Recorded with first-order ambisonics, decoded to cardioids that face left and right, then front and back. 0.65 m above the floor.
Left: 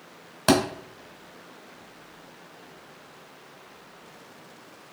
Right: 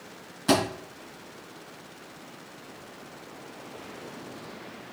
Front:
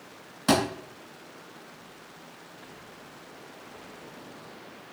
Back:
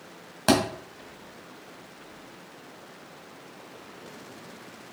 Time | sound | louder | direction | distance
0.5 | a thud | left 2 dB, back 1 dB | 125° left | 1.6 m